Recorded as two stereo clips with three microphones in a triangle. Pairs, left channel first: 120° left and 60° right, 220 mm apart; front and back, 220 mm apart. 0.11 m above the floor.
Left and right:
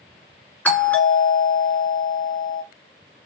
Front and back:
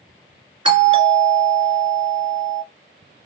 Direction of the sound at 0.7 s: 170° right.